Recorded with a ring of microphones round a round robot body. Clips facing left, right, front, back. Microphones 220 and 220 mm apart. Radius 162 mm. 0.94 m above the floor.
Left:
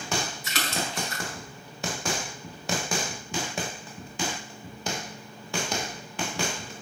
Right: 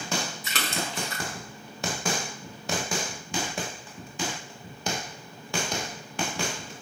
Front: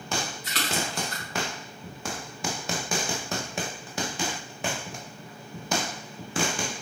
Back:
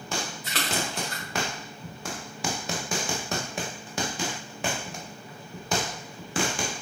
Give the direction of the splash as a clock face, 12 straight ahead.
4 o'clock.